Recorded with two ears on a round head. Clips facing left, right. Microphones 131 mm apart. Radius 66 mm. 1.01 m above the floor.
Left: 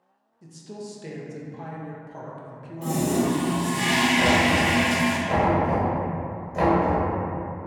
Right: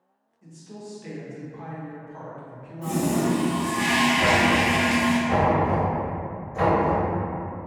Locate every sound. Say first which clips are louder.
0.4 s a woman speaking: left 3 dB; 40° left (ahead or behind), 0.5 m
2.8 s a toilet flushing: even; 35° left (ahead or behind), 0.8 m
4.2 s knocking: left 1 dB; 60° left (ahead or behind), 1.5 m